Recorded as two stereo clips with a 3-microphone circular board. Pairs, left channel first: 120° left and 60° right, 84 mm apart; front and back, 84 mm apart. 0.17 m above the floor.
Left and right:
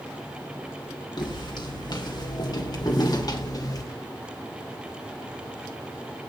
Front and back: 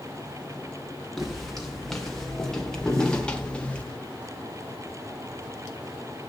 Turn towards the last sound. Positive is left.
turn(degrees=75)